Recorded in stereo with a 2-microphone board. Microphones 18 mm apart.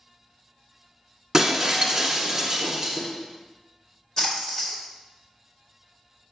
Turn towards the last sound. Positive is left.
turn(degrees=35)  # may be behind; listen again after turning